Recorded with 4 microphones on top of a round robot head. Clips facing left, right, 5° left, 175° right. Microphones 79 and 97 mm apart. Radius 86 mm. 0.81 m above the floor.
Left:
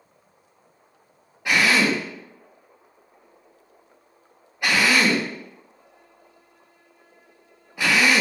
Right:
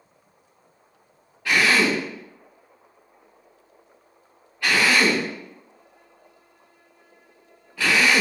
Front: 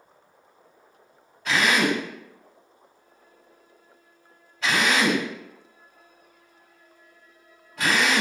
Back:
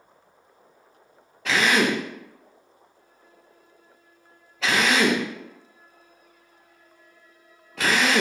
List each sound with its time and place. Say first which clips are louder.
1.4 s a drill: even, back 1 dB; 170° left, 0.7 m